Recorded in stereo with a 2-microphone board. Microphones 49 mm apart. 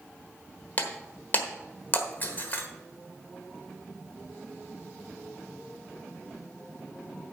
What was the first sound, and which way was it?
Breaking glass, 35° left (ahead or behind).